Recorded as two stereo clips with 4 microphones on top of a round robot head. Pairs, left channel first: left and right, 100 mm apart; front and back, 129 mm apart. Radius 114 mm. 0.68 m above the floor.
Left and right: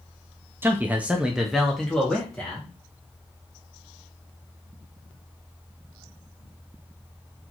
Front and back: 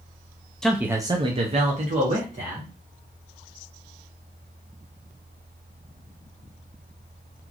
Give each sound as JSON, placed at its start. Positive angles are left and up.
{"t": 0.6, "sound": "a man speaking", "azimuth_deg": -80, "distance_m": 0.5}